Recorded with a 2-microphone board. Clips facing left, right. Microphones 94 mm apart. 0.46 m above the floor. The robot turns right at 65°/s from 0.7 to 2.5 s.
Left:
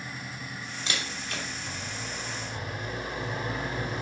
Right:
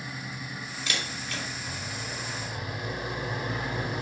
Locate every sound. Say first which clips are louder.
0.9 s a camera shutter: even; 30° left (ahead or behind), 2.5 m; by 1.4 s 55° left (ahead or behind), 2.5 m